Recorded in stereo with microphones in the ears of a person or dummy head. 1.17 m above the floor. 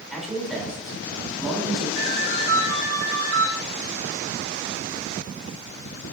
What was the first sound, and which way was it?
A man speaking, centre (ahead or behind).